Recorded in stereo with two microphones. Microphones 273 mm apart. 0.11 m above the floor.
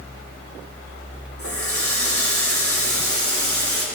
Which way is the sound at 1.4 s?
55° left (ahead or behind).